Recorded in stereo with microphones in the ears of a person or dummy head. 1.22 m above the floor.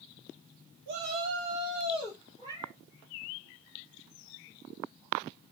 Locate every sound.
0.9 s a shout: 60° right (ahead or behind), 2 m; by 2.2 s 25° right (ahead or behind), 2.5 m
2.4 s a cat meowing: 20° right (ahead or behind), 2.5 m